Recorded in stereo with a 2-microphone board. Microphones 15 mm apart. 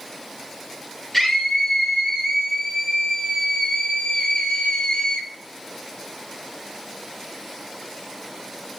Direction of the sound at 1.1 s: 30° left (ahead or behind).